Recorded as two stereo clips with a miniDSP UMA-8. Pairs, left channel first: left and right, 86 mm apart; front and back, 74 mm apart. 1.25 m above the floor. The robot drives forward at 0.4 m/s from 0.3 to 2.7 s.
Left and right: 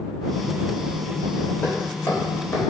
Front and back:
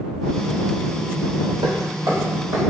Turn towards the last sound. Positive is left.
turn(degrees=165)